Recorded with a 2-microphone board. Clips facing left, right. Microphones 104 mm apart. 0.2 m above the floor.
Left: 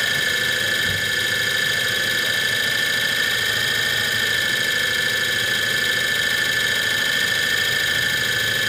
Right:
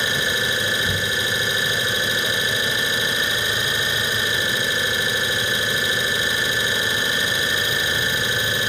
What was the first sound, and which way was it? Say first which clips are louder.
An engine running: right 1 dB; 20° right (ahead or behind).